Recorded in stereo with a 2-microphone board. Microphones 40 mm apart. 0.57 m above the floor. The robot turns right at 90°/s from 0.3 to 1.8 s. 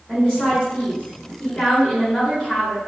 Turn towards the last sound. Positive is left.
turn(degrees=165)